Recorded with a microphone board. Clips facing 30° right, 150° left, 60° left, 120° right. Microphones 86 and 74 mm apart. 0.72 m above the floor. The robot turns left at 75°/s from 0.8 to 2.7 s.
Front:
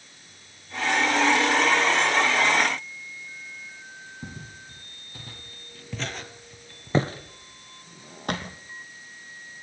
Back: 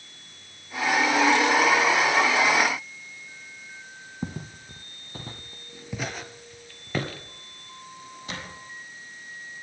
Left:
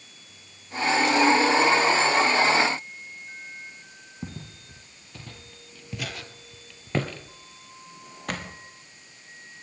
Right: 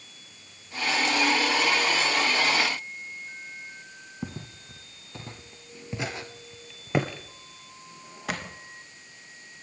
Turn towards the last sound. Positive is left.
turn(degrees=-35)